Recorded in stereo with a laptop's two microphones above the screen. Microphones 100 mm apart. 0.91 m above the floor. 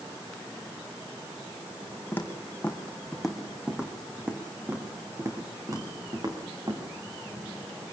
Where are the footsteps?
20° left (ahead or behind), 2 m; by 6.8 s 40° right (ahead or behind), 3.5 m.